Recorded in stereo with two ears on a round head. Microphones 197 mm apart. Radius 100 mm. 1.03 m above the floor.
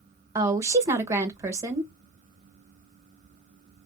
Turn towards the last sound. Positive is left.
turn(degrees=-15)  # may be behind; listen again after turning